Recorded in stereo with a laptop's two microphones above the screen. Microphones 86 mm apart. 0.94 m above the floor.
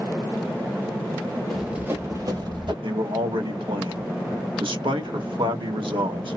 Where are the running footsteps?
Centre (ahead or behind), 1.2 m; by 2.7 s 65° right (ahead or behind), 2 m.